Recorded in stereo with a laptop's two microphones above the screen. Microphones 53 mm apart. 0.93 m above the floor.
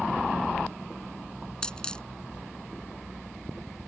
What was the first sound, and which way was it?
A dropped coin, 15° left (ahead or behind).